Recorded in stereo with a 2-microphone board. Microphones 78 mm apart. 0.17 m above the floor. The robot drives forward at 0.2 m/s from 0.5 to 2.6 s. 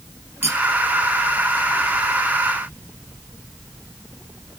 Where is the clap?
No clap in this recording.